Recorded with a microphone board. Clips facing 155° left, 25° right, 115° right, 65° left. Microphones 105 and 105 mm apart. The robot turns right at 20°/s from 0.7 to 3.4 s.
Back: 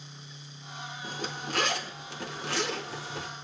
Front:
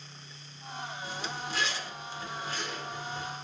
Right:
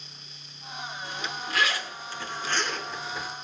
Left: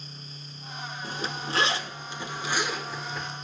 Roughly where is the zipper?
Behind left.